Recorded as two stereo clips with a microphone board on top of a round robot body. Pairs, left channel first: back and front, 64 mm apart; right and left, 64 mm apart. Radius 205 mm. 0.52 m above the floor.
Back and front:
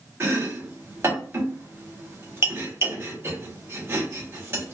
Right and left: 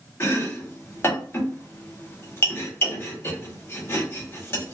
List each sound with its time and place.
0.2 s chopping: 40° right, 1.4 m